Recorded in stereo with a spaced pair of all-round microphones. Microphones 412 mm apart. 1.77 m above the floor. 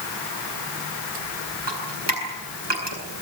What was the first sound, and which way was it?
Dripping, 80° right.